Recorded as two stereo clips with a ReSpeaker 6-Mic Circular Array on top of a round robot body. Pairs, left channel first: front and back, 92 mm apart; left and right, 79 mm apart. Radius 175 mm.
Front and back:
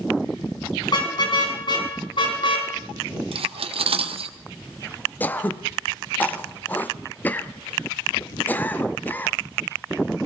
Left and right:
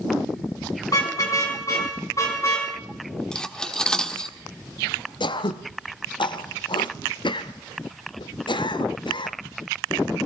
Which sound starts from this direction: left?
Throat clearing, at 5.2 s.